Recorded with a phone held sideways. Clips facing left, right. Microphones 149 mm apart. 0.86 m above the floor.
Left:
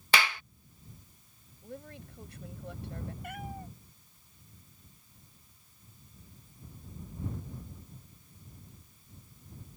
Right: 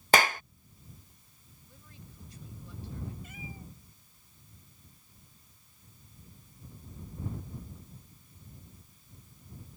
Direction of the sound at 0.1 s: 45° right (ahead or behind).